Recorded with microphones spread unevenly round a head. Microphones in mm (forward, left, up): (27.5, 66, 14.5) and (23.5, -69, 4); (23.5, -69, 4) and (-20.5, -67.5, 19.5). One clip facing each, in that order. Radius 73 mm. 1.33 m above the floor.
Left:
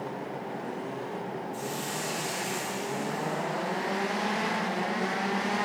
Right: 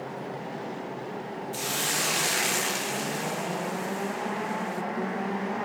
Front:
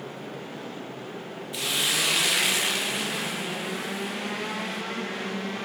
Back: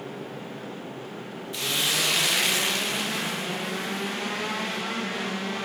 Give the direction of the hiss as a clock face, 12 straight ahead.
3 o'clock.